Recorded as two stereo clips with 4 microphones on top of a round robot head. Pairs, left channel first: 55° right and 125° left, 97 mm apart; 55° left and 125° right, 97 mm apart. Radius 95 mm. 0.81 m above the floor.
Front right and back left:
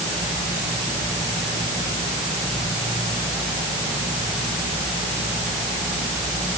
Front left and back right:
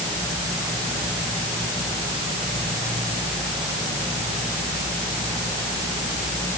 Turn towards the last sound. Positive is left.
No sound to turn to.